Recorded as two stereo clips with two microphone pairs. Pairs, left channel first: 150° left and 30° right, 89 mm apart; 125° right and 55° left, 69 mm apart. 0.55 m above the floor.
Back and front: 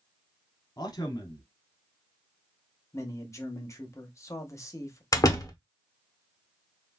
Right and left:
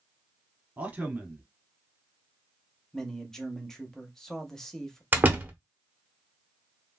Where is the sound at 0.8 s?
120° left, 1.1 m.